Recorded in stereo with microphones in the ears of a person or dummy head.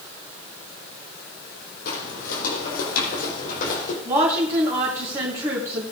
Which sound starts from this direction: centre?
A woman speaking, at 4.0 s.